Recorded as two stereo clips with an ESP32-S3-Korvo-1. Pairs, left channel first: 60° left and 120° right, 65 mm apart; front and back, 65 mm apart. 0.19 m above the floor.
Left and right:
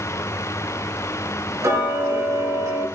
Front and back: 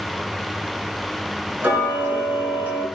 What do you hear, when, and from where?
1.6 s ticking: 120° right, 3 m